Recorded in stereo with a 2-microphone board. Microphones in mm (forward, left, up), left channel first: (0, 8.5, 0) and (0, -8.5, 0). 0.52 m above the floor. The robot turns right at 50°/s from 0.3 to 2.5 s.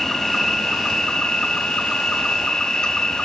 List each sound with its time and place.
0.0 s an insect: 30° left, 1.5 m; by 3.2 s 140° left, 1.5 m